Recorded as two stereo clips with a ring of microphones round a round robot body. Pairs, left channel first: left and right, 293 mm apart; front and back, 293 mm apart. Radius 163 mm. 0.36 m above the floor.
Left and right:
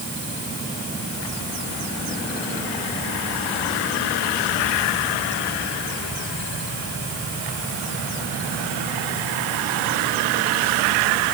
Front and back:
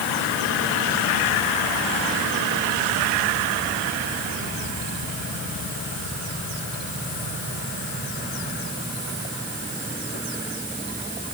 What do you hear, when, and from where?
Only background noise.